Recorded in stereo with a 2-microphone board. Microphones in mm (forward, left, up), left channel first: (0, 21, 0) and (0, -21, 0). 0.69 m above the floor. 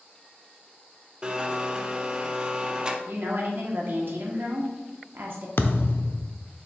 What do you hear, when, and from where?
1.2 s a blender: 20° right (ahead or behind), 0.7 m
3.1 s a woman speaking: 55° right (ahead or behind), 1.4 m
5.6 s a thud: 65° left (ahead or behind), 0.6 m